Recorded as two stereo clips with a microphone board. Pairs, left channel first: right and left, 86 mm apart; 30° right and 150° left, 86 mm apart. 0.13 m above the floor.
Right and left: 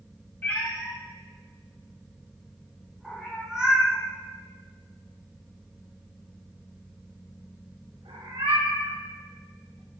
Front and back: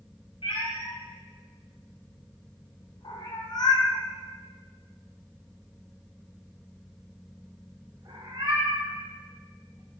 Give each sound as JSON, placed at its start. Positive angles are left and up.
{"t": 0.4, "sound": "a cat meowing", "azimuth_deg": -20, "distance_m": 3.0}